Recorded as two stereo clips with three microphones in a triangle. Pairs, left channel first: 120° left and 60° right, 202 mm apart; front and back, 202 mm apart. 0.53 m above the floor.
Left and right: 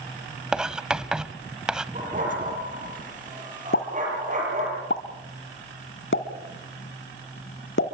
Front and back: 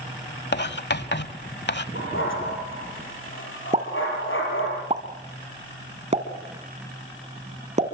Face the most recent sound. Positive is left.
turn(degrees=125)